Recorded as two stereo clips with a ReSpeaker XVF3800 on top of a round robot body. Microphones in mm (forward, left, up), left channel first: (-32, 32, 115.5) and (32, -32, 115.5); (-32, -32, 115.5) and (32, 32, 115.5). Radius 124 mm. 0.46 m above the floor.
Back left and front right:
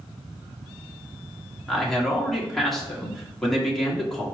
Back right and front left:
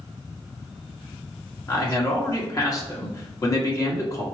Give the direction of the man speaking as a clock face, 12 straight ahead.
5 o'clock.